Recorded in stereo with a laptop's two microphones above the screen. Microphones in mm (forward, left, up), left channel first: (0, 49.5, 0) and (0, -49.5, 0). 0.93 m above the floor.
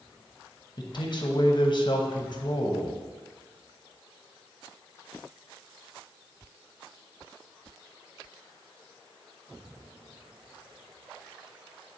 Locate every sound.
0.8 s a man speaking: 50° left (ahead or behind), 0.9 m